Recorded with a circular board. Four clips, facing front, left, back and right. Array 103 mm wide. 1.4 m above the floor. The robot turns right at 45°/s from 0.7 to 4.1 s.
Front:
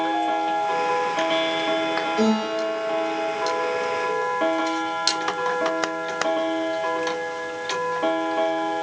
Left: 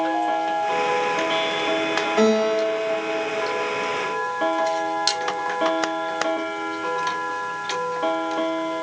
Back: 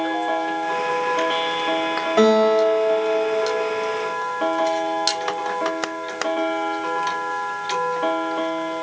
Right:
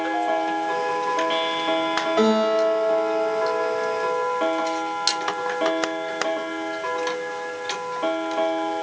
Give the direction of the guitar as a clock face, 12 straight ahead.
5 o'clock.